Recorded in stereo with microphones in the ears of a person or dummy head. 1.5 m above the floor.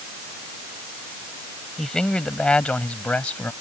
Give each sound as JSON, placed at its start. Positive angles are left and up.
{"t": 1.8, "sound": "a man speaking", "side_deg": 5}